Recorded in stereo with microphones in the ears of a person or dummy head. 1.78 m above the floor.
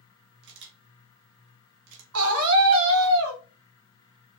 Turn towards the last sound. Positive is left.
turn(degrees=-80)